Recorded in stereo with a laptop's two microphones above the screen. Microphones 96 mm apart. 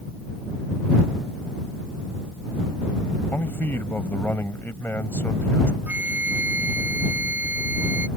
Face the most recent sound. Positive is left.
turn(degrees=-20)  # may be behind; listen again after turning